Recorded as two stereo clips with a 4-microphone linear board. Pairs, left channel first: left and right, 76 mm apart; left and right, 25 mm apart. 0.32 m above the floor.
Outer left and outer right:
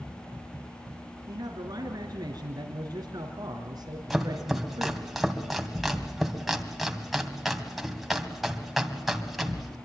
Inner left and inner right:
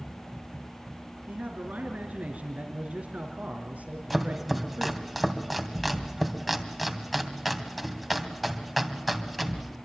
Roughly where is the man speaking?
Right.